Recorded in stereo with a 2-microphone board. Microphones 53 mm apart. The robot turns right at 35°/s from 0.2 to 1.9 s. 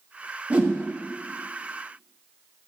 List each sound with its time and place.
0.5 s a whoosh: 30° right (ahead or behind), 0.8 m; by 0.8 s 25° right (ahead or behind), 0.8 m